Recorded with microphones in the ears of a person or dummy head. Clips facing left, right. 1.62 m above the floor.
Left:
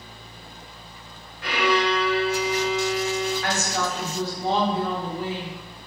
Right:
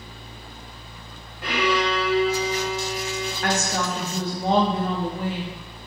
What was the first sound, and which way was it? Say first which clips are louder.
A violin: even; 65° right (ahead or behind).